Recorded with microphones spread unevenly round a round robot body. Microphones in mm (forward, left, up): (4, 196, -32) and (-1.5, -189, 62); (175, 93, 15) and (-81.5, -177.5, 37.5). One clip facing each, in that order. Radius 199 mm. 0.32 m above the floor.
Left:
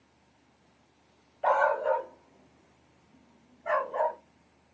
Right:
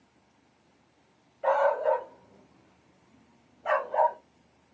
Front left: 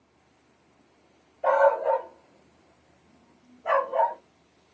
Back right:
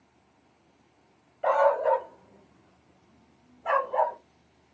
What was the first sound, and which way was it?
A dog barking, 165° left.